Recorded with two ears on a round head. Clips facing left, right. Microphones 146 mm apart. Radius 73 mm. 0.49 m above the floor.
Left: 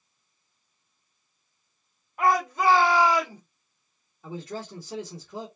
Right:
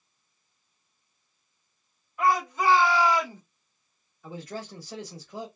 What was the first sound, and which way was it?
A shout, 45° left (ahead or behind).